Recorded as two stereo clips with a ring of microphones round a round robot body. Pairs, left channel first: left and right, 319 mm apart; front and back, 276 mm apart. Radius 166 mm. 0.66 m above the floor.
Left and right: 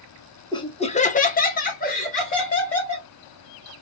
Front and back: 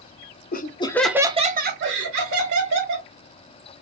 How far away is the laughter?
About 0.7 m.